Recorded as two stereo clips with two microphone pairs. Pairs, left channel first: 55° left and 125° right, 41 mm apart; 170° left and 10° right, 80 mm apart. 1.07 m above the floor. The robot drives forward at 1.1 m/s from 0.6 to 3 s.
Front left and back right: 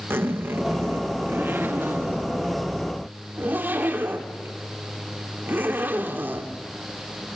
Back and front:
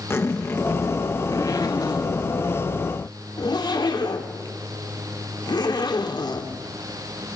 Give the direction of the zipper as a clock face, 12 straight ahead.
5 o'clock.